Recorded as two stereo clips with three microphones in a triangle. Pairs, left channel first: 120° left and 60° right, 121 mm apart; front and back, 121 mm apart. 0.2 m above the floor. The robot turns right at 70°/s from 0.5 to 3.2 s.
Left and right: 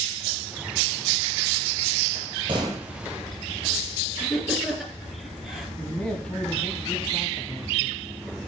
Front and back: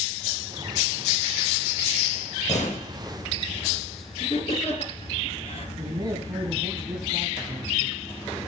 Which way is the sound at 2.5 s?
10° right.